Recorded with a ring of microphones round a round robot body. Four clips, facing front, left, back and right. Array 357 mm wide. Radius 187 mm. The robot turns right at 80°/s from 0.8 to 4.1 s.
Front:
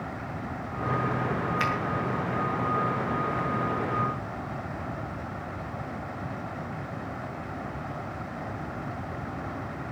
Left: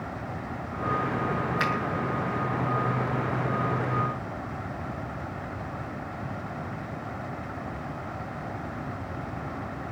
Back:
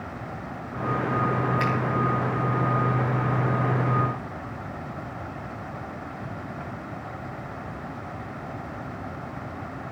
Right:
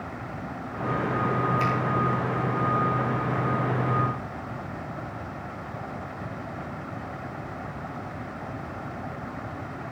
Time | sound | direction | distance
1.6 | a finger snap | 50° left | 5.5 m